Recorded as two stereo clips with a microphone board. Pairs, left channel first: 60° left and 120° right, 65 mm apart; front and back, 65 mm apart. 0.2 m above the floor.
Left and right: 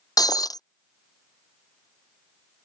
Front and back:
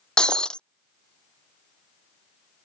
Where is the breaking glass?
75° left.